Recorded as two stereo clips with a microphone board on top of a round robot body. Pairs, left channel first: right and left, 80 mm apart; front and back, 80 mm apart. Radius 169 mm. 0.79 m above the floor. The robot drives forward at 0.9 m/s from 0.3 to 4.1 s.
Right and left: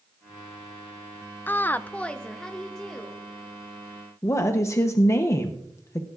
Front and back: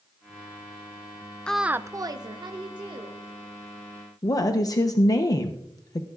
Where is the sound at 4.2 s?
40° right, 0.9 m.